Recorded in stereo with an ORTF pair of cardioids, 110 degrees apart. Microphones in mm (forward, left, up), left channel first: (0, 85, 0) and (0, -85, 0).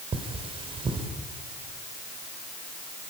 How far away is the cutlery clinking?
About 3 m.